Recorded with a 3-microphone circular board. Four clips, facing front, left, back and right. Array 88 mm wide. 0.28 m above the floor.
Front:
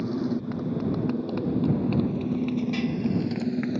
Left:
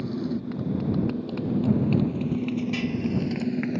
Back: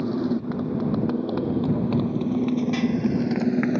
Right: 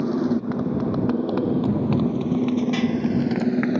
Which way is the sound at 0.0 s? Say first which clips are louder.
Right 7 dB, back 3 dB; 115° right.